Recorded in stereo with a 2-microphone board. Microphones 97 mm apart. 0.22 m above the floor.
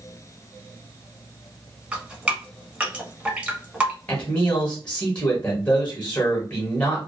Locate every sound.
1.9 s dripping: 15° right (ahead or behind), 0.9 m
4.1 s a man speaking: 10° left (ahead or behind), 1.0 m